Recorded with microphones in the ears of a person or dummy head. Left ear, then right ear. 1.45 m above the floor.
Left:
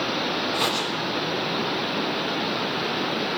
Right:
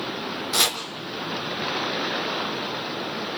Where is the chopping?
65° right (ahead or behind), 3 m.